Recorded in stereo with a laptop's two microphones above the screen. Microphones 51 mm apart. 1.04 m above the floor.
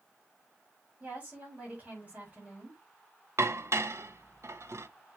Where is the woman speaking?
25° right (ahead or behind), 4 m.